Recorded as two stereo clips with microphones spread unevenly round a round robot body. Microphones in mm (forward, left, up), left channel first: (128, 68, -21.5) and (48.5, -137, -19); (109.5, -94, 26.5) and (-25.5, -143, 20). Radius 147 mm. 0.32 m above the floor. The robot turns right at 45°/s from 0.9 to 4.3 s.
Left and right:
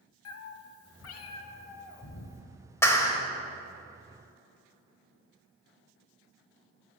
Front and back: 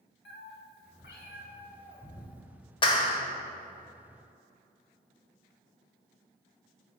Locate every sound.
0.2 s a cat meowing: 45° left, 0.5 m; by 2.4 s 110° left, 0.5 m
2.8 s a clap: straight ahead, 0.8 m; by 3.2 s 20° left, 0.8 m